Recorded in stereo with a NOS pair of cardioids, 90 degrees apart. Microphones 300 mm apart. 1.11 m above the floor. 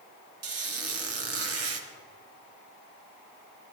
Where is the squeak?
45° right, 1.5 m.